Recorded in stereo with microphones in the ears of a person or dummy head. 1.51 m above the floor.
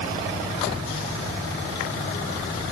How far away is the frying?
No frying in this recording.